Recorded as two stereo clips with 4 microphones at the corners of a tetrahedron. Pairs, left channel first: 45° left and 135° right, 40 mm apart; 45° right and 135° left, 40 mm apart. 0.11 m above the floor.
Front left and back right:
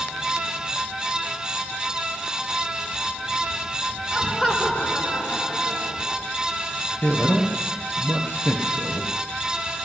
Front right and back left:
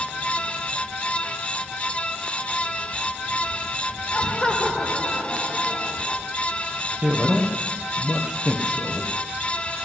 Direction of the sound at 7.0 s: 70° left.